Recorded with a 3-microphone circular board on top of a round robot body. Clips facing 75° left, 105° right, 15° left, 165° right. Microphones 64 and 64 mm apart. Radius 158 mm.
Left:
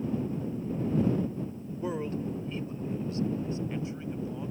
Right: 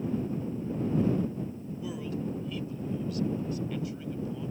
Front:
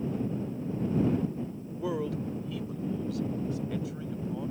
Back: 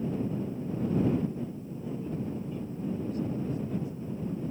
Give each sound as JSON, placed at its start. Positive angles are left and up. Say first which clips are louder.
{"t": 1.8, "sound": "a man speaking", "louder": "left 3 dB, front 4 dB", "azimuth_deg": 20}